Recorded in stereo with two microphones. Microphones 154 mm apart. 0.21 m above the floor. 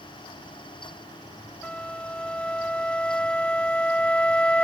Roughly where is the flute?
Centre.